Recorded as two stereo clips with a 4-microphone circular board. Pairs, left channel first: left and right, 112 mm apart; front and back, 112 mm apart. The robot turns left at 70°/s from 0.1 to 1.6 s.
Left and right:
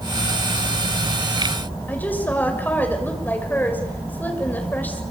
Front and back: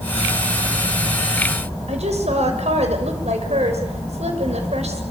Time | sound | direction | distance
1.9 | a woman speaking | 165° left | 6.5 m